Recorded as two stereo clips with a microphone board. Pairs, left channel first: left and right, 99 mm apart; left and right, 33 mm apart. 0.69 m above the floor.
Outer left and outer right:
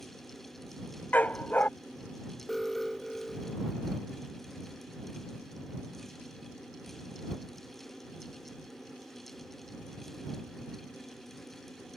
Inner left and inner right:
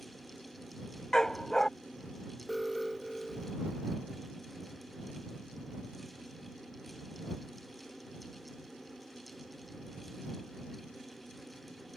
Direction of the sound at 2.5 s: Centre (ahead or behind).